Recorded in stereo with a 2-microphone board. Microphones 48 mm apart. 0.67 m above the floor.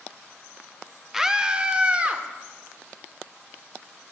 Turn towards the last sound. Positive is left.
turn(degrees=-25)  # may be behind; listen again after turning